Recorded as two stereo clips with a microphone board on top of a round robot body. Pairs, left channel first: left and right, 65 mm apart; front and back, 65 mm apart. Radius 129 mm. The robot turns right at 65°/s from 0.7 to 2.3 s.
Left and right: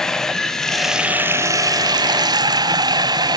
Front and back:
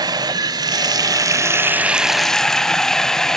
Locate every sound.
0.0 s running water: 175° left, 1.0 m; by 3.4 s 85° right, 1.0 m